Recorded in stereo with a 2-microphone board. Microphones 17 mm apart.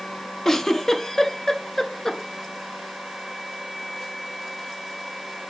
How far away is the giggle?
About 0.6 m.